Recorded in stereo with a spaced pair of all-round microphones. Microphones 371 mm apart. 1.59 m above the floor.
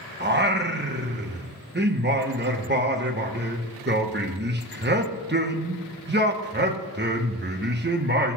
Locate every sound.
0.2 s singing: 30° right (ahead or behind), 1.0 m